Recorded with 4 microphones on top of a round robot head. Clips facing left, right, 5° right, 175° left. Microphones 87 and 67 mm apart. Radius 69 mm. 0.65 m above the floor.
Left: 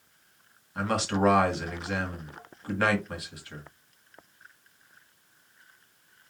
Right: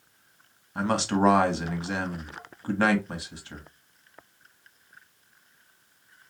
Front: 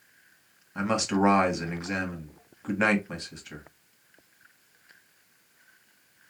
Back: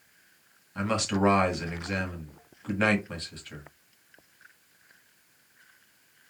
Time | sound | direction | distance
0.8 | a man speaking | 65° right | 1.2 m